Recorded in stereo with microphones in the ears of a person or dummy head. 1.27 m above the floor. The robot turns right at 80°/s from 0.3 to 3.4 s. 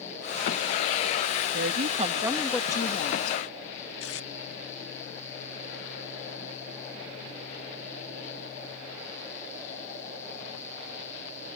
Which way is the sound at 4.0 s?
70° left (ahead or behind).